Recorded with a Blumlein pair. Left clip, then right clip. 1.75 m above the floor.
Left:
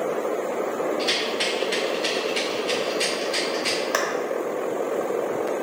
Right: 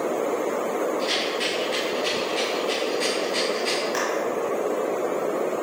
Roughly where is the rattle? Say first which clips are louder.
Left 1 dB; ahead left.